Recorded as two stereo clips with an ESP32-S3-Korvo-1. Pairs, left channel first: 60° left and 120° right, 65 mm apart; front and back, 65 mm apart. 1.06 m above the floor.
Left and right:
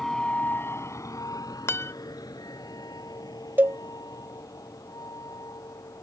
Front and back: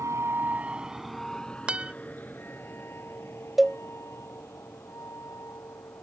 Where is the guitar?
110° left.